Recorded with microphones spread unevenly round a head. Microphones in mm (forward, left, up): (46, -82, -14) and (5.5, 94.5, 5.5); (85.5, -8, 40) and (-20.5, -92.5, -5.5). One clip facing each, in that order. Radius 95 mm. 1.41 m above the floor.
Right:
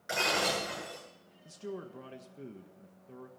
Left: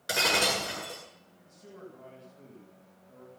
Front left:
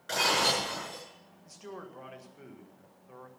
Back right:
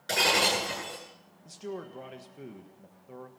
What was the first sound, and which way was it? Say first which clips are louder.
Breaking glass: left 2 dB, back right 2 dB; 155° left.